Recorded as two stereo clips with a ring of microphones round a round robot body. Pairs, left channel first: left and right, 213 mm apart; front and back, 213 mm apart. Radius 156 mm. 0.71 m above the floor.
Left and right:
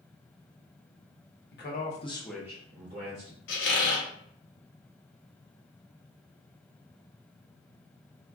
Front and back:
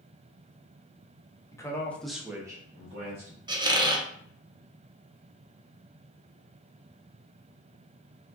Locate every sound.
1.5 s a man speaking: 75° left, 0.8 m; by 3.4 s 120° right, 1.0 m
3.5 s a squeak: 110° left, 0.6 m